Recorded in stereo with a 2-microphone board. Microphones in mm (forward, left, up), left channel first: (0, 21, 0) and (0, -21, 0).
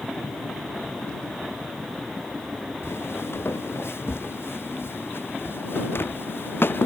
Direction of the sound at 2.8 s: 80° left.